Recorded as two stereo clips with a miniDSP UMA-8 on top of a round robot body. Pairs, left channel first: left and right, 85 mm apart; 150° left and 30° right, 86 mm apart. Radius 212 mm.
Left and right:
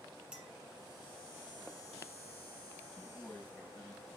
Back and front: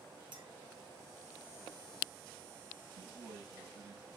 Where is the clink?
10° right, 1.9 m.